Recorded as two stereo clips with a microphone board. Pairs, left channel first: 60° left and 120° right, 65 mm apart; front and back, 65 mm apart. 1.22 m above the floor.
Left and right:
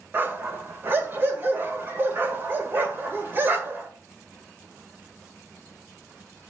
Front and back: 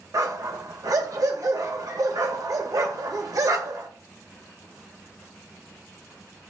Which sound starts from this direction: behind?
A dog barking, at 0.1 s.